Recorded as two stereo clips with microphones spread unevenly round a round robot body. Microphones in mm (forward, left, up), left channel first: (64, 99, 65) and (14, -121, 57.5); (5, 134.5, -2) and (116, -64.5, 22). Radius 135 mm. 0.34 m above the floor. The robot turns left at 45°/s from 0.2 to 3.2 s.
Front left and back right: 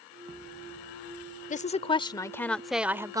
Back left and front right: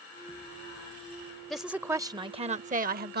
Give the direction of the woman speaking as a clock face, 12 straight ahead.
11 o'clock.